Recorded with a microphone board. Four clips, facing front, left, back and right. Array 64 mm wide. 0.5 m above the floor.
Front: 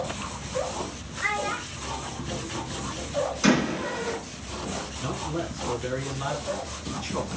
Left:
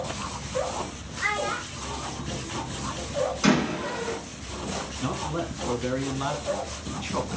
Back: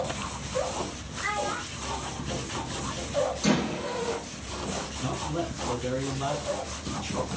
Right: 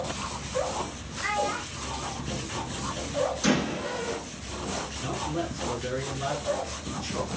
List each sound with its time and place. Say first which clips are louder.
1.2 s a child speaking: left 1 dB, front 2 dB; 70° left, 5 m; by 3.2 s 75° left, 2.0 m
3.4 s a door slam: left 3 dB, front 4 dB; 55° left, 4.5 m
5.0 s a man speaking: left 2 dB, even; 85° left, 4 m